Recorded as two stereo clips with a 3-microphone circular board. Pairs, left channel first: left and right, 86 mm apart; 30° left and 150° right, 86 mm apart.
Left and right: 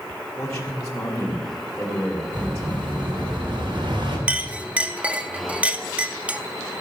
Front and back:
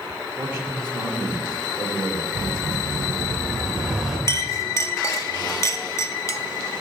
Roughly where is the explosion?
Ahead right.